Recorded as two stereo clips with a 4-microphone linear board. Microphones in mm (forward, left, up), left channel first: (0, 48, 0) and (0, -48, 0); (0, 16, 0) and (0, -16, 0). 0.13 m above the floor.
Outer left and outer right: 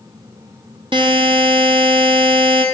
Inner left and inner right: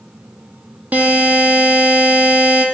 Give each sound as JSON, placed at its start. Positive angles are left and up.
{"t": 0.9, "sound": "a buzzer", "side_deg": -55, "distance_m": 0.9}